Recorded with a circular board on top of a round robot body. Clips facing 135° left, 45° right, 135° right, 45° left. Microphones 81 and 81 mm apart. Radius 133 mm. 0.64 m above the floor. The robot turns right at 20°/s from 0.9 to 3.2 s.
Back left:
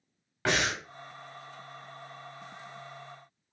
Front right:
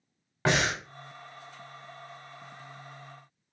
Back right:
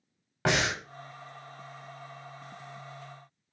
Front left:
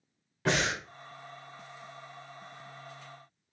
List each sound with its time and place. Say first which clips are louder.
0.5 s breathing: front right 2 dB, back right 1 dB; 110° right, 0.7 m